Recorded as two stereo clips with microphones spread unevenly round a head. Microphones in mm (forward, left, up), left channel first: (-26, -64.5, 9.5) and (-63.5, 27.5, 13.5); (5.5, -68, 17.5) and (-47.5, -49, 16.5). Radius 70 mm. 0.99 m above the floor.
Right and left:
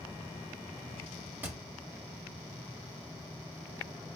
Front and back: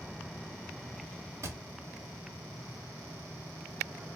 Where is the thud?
Straight behind, 0.7 m.